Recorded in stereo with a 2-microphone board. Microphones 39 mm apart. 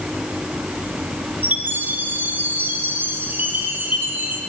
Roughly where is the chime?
Right.